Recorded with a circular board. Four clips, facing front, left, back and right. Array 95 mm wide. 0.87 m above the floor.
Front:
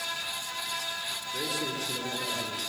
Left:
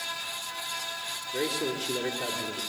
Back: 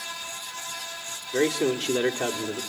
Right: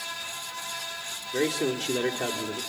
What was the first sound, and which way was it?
A man speaking, 155° right.